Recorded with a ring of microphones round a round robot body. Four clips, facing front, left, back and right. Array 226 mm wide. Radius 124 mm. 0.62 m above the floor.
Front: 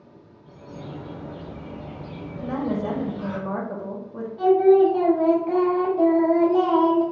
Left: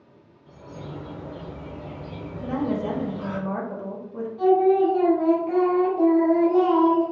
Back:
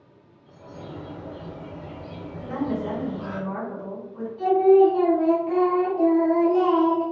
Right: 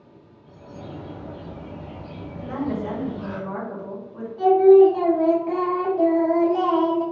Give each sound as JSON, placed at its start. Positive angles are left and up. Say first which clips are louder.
{"t": 0.5, "sound": "a bird", "louder": "even, front 1 dB", "azimuth_deg": 75, "distance_m": 0.9}
{"t": 2.4, "sound": "a woman speaking", "louder": "left 1 dB, front 1 dB", "azimuth_deg": 30, "distance_m": 0.9}
{"t": 4.4, "sound": "singing", "louder": "right 6 dB, even", "azimuth_deg": -50, "distance_m": 1.3}